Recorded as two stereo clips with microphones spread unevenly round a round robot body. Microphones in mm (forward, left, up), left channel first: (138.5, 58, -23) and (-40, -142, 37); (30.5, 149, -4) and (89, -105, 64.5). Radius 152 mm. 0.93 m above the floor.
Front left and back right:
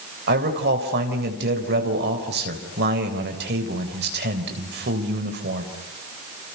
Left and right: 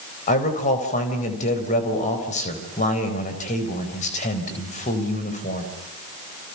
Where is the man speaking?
170° left, 3.5 m.